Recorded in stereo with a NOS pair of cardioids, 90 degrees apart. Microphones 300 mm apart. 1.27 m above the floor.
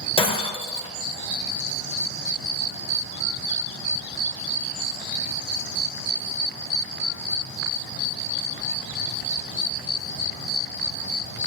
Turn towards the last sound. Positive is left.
turn(degrees=15)